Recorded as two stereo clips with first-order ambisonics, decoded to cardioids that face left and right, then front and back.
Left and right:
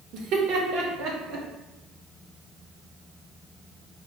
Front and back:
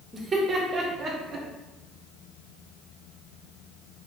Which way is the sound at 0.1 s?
110° right.